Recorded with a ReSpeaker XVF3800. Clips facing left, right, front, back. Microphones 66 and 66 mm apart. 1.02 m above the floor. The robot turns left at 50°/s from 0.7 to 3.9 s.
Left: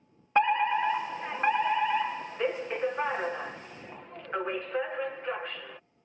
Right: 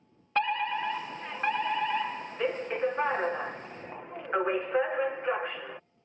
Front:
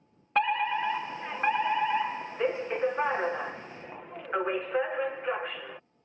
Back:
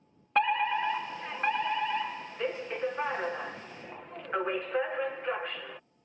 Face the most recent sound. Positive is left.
turn(degrees=-70)